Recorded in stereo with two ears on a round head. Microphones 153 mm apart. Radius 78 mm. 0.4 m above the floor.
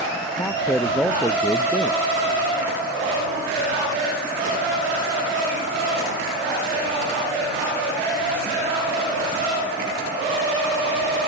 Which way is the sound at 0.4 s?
10° left (ahead or behind).